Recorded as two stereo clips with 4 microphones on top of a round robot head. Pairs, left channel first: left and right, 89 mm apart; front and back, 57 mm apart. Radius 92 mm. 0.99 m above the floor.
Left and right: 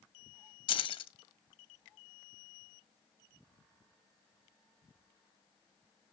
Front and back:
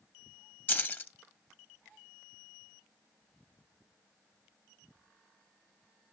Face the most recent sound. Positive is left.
turn(degrees=60)